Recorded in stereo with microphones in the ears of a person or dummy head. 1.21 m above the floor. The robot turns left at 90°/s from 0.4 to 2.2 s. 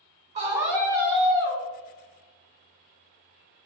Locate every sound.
0.3 s a scream: 150° right, 1.3 m; by 1.6 s 100° left, 1.3 m